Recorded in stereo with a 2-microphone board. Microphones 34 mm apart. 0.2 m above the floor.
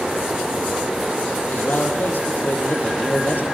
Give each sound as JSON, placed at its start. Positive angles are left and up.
{"t": 1.5, "sound": "a man speaking", "side_deg": 65, "distance_m": 9.0}